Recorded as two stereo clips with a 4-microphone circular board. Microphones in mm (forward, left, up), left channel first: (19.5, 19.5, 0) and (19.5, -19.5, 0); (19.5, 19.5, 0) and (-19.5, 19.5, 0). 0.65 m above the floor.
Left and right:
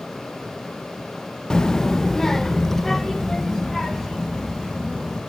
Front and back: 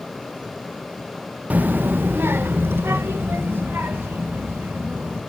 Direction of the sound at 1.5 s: 155° left.